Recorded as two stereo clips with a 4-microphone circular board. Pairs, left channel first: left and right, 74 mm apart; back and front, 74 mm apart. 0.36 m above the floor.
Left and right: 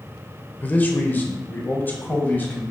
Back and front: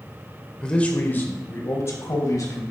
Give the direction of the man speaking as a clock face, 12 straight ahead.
8 o'clock.